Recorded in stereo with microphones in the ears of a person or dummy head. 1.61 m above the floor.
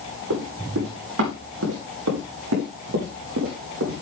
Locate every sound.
0.3 s running footsteps: 75° right (ahead or behind), 7 m; by 4.0 s 70° right (ahead or behind), 5.5 m